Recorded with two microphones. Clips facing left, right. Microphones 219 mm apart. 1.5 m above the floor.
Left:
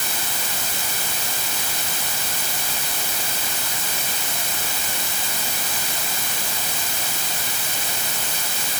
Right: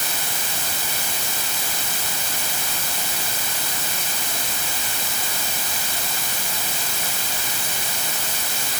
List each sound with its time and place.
Only background noise.